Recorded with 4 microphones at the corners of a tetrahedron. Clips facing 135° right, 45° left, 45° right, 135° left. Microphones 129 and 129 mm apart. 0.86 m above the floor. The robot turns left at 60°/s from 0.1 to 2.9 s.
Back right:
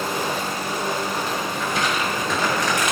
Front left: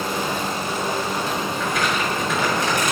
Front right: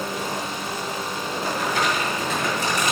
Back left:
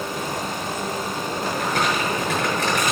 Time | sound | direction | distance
1.6 | crumpling | 175° left | 6.5 m